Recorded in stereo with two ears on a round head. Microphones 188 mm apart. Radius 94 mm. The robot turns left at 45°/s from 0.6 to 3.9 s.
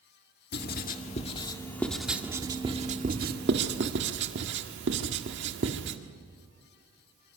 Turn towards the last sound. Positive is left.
turn(degrees=-60)  # may be behind; listen again after turning